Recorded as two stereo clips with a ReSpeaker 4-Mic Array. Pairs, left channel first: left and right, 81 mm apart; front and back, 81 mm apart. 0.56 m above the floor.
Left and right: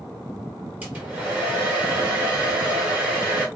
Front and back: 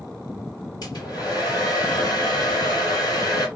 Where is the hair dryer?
25° right, 2 m.